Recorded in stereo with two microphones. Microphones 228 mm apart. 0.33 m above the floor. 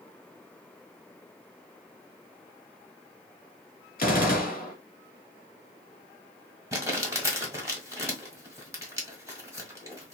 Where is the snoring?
No snoring in this recording.